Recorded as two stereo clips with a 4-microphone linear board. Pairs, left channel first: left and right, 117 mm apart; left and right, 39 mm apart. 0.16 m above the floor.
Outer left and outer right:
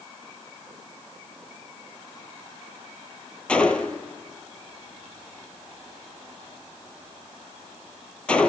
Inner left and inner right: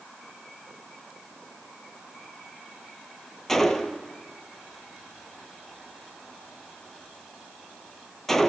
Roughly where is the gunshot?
Centre.